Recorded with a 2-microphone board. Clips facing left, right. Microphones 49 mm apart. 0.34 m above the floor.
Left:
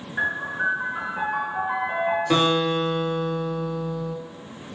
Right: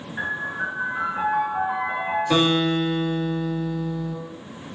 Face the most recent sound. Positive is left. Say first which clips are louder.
# right 2 dB
turn(degrees=20)  # may be behind; listen again after turning